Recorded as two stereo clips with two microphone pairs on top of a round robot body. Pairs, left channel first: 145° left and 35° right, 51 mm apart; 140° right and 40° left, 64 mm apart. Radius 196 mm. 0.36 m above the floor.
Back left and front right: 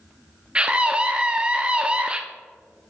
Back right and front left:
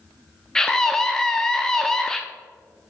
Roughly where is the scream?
Right.